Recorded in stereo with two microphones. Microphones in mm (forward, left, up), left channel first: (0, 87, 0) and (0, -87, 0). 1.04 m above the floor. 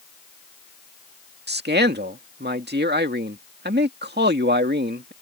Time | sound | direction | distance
1.5 | a man speaking | 75° right (ahead or behind) | ?